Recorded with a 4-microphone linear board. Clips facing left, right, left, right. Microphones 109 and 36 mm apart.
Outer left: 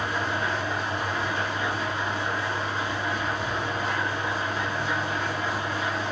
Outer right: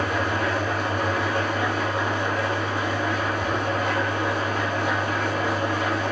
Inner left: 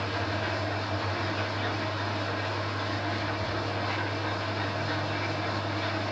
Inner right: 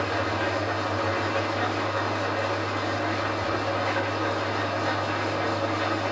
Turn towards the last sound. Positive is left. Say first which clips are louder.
# outer right 4 dB, inner right 5 dB
turn(degrees=-75)  # may be behind; listen again after turning